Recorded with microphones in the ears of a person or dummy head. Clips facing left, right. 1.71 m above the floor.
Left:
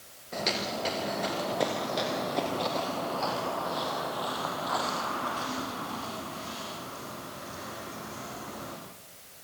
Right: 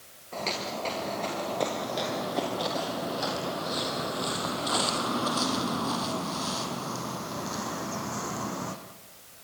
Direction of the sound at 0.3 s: 15° left (ahead or behind).